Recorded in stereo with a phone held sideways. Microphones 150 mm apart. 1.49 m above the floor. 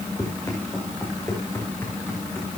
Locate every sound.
0.2 s running footsteps: 25° left (ahead or behind), 6.5 m; by 2.5 s 15° left (ahead or behind), 7.5 m